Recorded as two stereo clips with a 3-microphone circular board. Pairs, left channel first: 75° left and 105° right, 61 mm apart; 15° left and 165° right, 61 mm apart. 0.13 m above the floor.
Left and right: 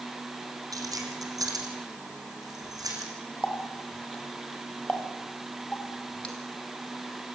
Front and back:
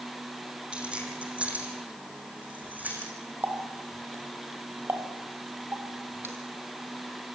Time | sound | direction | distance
0.7 | keys jangling | 95° right | 4.5 m
3.4 | a running tap | 145° left | 2.5 m